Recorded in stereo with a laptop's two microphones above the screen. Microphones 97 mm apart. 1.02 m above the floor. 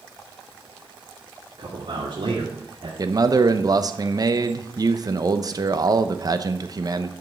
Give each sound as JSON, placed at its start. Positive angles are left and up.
{"t": 1.6, "sound": "a man speaking", "side_deg": -60, "distance_m": 2.5}
{"t": 3.0, "sound": "a man speaking", "side_deg": -40, "distance_m": 0.7}